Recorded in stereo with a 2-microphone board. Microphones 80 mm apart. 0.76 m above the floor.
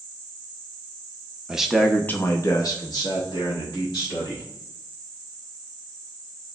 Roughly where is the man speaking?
Centre.